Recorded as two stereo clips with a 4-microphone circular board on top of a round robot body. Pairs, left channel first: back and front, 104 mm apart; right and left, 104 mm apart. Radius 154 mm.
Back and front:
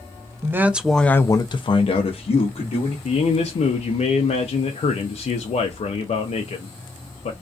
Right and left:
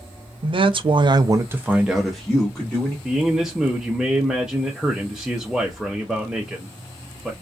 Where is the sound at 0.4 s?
65° left, 0.6 m; by 3.0 s 165° right, 1.0 m.